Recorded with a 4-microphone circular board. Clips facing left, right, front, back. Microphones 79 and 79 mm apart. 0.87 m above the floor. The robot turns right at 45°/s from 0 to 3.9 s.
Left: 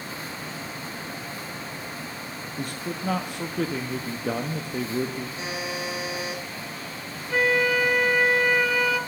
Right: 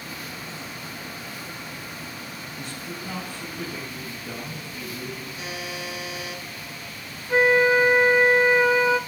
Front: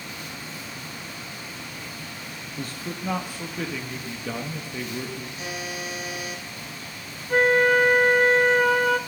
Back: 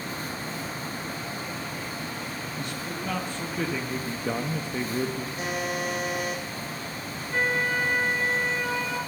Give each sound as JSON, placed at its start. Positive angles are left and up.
{"t": 2.6, "sound": "a man speaking", "azimuth_deg": 45, "distance_m": 0.7}
{"t": 5.4, "sound": "a buzzer", "azimuth_deg": 150, "distance_m": 2.0}
{"t": 7.3, "sound": "a flute", "azimuth_deg": -25, "distance_m": 0.5}